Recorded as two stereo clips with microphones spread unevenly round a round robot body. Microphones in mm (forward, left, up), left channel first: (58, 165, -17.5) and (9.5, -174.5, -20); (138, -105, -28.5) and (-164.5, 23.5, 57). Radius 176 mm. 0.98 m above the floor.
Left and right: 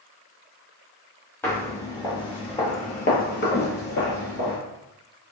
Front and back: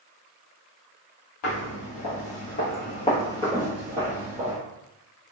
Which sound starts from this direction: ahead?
Footsteps, at 1.4 s.